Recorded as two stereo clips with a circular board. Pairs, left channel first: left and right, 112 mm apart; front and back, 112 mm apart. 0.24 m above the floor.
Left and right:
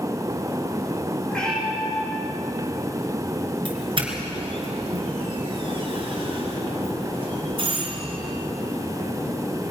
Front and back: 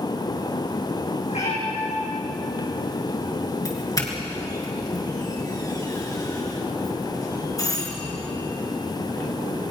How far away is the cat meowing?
About 7.5 m.